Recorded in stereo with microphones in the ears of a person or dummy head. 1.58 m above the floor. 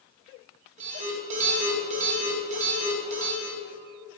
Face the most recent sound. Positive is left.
turn(degrees=-40)  # may be behind; listen again after turning